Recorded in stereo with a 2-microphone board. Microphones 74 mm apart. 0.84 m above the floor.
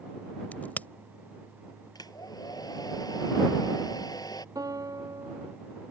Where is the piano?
55° right (ahead or behind).